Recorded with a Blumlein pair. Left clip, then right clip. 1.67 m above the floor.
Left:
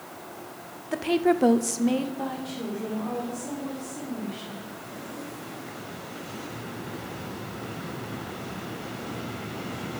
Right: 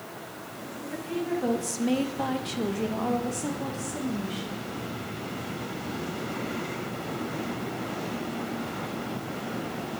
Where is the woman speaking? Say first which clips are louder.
Left 8 dB; 60° left, 0.8 m; by 4.7 s 45° right, 3 m.